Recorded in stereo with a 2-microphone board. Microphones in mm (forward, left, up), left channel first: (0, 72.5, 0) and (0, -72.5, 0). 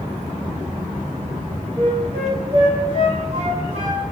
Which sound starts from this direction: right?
A flute, at 1.8 s.